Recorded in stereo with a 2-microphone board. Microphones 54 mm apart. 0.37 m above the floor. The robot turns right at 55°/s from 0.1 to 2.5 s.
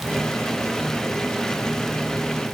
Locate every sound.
Only background noise.